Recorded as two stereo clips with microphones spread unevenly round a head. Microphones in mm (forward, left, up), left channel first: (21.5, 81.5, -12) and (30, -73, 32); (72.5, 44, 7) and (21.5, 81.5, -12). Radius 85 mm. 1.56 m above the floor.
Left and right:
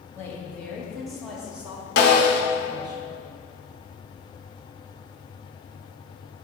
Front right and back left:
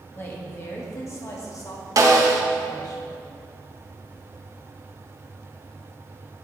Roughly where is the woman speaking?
Ahead.